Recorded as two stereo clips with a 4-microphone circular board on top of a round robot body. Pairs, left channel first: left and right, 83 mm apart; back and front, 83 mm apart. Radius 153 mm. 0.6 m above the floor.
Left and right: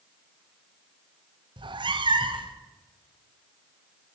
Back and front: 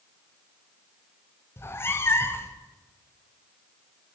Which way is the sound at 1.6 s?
115° right.